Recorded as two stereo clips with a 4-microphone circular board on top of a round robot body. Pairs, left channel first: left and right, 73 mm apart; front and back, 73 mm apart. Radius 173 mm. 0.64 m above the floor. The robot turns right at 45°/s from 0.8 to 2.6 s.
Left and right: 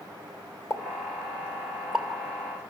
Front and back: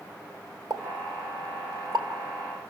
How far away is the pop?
About 2.5 m.